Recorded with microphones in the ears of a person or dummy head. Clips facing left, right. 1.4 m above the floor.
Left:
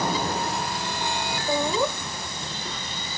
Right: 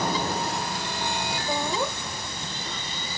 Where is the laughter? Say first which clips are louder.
Left 5 dB; 85° left, 1.7 m; by 3.2 s 65° left (ahead or behind), 0.8 m.